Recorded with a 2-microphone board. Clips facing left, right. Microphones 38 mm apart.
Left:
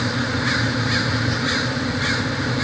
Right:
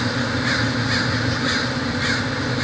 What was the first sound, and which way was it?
Only background noise.